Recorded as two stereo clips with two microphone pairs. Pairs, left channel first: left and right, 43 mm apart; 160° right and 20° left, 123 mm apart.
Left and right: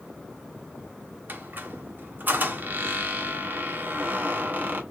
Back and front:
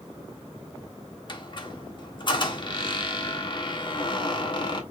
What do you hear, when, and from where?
1.3 s a squeak: 125° right, 0.9 m